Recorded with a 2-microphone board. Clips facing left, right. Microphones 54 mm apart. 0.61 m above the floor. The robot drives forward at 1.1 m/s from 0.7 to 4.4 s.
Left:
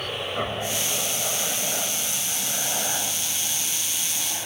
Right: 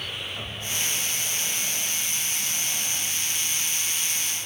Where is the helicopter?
50° left (ahead or behind); by 4.5 s 45° left (ahead or behind).